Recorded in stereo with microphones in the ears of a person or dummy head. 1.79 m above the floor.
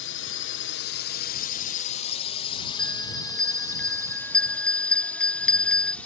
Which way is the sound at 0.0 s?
60° left (ahead or behind).